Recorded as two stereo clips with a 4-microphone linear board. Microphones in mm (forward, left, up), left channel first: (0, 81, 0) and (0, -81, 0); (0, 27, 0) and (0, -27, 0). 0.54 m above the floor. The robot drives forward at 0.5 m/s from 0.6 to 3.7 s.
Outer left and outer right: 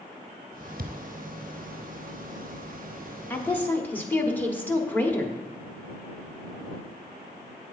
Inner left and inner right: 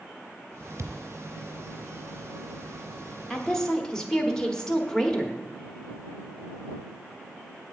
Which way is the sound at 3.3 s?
10° left (ahead or behind).